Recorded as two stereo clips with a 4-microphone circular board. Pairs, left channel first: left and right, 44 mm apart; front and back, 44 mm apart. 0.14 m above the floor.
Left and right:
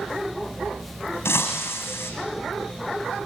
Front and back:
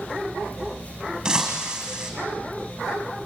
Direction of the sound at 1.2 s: 105° left.